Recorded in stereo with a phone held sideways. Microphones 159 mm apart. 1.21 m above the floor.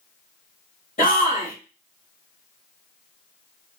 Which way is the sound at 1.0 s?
55° left (ahead or behind).